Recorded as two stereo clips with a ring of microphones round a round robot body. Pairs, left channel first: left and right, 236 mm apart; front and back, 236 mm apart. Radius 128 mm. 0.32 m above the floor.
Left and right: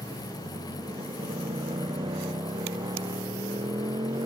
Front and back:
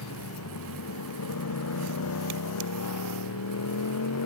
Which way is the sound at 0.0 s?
15° right.